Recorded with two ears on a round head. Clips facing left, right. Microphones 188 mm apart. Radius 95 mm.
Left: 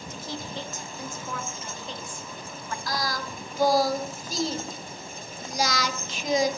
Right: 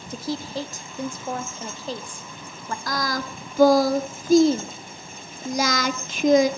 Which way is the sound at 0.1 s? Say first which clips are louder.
Right 8 dB; 30° right (ahead or behind).